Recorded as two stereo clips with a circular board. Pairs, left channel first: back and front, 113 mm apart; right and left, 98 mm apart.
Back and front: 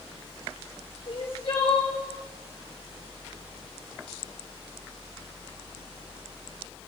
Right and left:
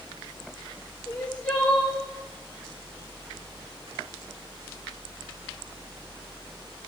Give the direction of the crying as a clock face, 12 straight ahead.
6 o'clock.